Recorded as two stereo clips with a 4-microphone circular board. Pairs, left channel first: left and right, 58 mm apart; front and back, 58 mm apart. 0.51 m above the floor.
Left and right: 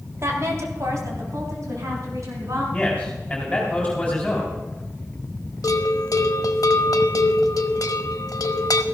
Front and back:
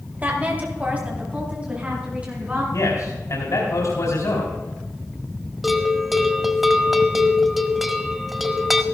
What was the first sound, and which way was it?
A woman speaking, 120° right.